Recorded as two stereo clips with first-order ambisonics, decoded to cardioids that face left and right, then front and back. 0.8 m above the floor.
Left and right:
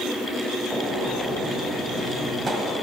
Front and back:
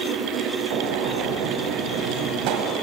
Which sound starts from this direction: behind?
A gunshot, at 0.7 s.